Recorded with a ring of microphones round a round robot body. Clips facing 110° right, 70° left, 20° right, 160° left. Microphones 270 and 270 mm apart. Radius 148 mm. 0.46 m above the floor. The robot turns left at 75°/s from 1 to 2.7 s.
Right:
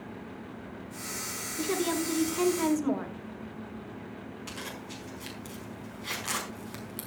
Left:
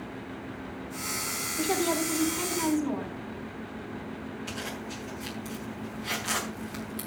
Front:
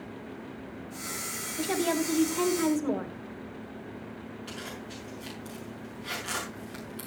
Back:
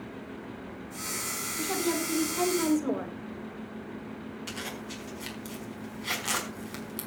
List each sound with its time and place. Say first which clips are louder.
1.6 s a woman speaking: left 1 dB, front 2 dB; 30° right, 2.5 m; by 3.2 s 115° right, 2.5 m
4.5 s a zipper: left 4 dB, back 1 dB; straight behind, 4.5 m